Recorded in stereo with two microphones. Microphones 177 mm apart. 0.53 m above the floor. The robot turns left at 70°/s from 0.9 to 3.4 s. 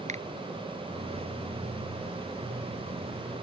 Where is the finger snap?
40° right (ahead or behind).